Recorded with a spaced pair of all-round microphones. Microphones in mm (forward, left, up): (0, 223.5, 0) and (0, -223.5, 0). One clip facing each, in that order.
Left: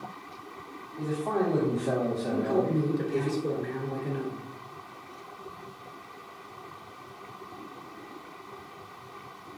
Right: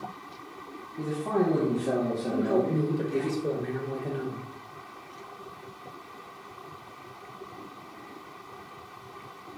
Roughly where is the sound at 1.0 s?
Right.